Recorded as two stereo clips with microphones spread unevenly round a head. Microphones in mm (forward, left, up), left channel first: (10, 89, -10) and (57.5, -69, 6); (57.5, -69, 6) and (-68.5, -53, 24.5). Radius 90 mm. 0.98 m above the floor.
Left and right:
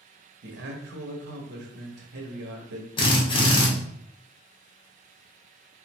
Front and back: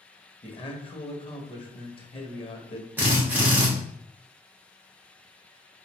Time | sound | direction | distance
0.4 | a man speaking | 50° right | 1.0 m
3.0 | a drill | 95° left | 0.8 m